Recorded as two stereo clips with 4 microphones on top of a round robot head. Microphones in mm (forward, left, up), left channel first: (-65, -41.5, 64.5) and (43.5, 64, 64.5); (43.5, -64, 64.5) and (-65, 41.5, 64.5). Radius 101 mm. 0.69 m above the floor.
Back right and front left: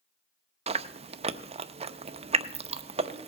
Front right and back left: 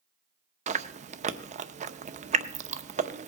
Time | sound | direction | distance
0.7 | chewing | 95° left | 0.7 m